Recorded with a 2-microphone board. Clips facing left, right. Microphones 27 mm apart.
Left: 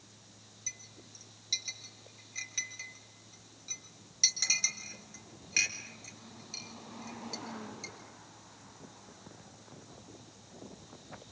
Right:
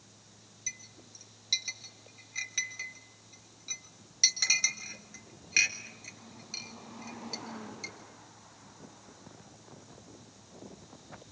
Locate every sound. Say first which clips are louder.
0.7 s a clink: right 3 dB; 15° right (ahead or behind), 3.5 m